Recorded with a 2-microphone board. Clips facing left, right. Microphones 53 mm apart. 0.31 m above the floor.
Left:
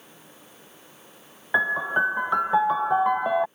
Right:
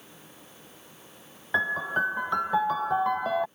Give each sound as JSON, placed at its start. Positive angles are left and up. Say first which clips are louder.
{"t": 1.5, "sound": "a piano", "louder": "left 4 dB", "side_deg": 15}